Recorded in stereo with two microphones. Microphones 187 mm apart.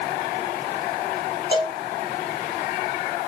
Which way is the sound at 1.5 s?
25° right (ahead or behind).